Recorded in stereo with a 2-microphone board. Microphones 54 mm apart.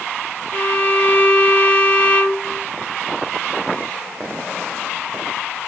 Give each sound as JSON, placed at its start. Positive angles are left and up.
{"t": 0.5, "sound": "a violin", "side_deg": 30, "distance_m": 1.4}